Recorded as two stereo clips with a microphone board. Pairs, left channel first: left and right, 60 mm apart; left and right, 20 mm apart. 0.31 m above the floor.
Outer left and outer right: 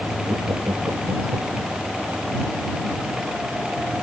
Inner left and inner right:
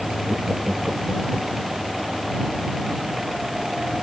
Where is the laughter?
80° right; by 1.7 s 70° right (ahead or behind).